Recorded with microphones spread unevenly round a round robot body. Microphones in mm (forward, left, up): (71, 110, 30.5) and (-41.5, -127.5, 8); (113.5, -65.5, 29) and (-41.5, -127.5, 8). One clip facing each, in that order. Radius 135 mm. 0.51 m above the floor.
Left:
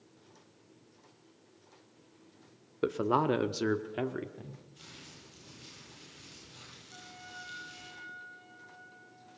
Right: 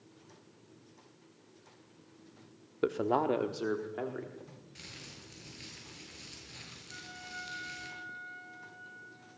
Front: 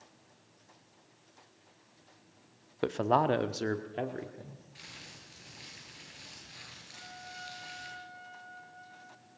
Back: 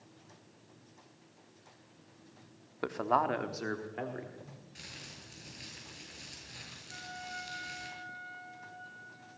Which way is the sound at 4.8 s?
120° right.